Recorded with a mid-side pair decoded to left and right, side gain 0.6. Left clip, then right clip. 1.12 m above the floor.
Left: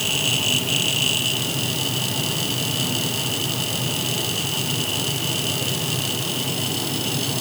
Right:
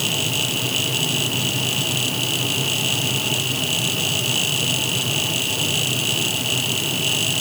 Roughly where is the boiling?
No boiling in this recording.